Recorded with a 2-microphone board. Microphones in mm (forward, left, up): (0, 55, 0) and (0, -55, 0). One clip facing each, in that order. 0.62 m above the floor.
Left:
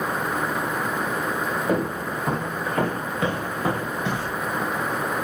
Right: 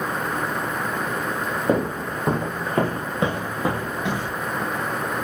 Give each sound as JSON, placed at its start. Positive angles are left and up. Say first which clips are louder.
{"t": 1.7, "sound": "footsteps", "louder": "right 4 dB", "side_deg": -30, "distance_m": 0.9}